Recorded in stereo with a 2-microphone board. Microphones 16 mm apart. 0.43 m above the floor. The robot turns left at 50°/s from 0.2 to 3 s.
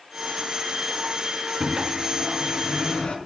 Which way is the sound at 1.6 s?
155° left.